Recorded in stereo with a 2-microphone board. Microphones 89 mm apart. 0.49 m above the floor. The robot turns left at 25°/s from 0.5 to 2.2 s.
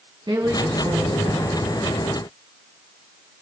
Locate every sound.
0.3 s a woman speaking: 55° right (ahead or behind), 4.5 m; by 1.7 s 75° right (ahead or behind), 4.5 m